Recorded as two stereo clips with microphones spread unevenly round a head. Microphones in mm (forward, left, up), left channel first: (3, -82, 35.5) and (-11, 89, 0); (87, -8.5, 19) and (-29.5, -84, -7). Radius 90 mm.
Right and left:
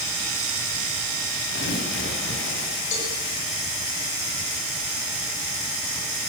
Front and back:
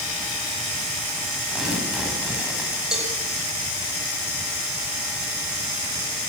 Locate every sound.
1.5 s tearing paper: 60° right, 10 m
2.9 s a cowbell: 60° right, 7 m